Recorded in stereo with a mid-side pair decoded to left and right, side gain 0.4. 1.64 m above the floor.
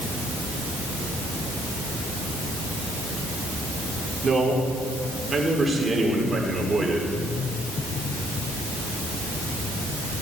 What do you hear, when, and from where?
4.2 s a man speaking: 40° right, 5 m; by 7.1 s 20° right, 5.5 m